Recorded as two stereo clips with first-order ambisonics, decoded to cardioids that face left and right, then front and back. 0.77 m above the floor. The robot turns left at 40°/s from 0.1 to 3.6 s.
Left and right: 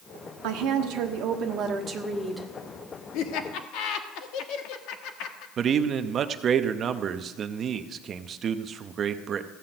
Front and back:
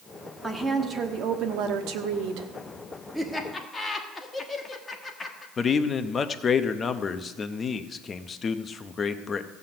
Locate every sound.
0.4 s a woman speaking: 100° right, 1.1 m; by 2.5 s straight behind, 1.1 m
3.1 s laughter: 90° left, 1.4 m; by 5.5 s 70° left, 1.4 m
5.6 s a man speaking: 55° right, 0.6 m